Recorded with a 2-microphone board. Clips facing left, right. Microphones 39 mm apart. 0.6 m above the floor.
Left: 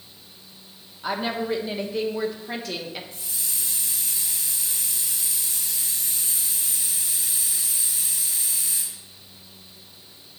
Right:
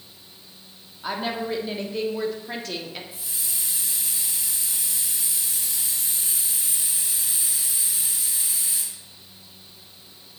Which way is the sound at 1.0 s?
5° left (ahead or behind).